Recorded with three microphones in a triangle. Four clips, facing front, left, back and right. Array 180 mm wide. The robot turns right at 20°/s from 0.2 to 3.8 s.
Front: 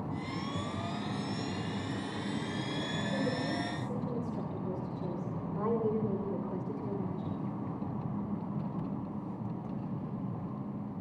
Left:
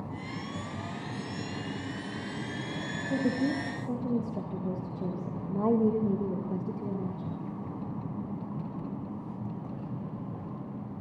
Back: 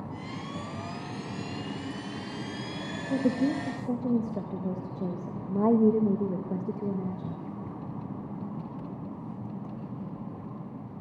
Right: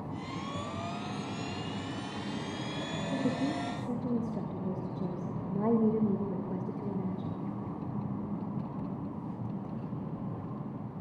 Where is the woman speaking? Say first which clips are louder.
Left 4 dB, back 9 dB; 150° left, 2 m; by 7.4 s 165° left, 2 m.